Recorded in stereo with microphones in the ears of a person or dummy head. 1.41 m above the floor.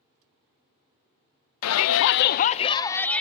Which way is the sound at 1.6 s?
85° left.